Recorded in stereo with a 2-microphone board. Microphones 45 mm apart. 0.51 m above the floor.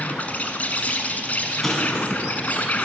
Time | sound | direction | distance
0.0 | an insect | 40° left (ahead or behind) | 1.3 m
1.6 | an explosion | 10° left (ahead or behind) | 3 m